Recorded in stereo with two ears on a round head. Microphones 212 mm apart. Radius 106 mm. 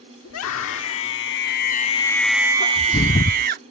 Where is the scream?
65° left (ahead or behind); by 3.6 s 45° right (ahead or behind).